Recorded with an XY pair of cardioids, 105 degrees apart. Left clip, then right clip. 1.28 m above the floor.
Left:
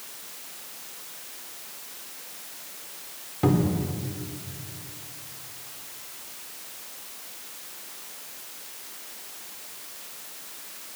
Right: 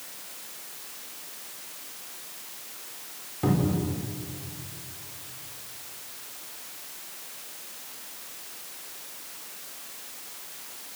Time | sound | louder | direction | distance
3.4 | a cupboard door | left 2 dB | 30° left | 4.5 m